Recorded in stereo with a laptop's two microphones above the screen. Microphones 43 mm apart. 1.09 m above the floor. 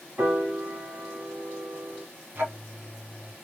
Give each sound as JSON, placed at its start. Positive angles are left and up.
{"t": 0.2, "sound": "a piano", "side_deg": -50, "distance_m": 3.0}
{"t": 2.4, "sound": "ticking", "side_deg": -45, "distance_m": 1.0}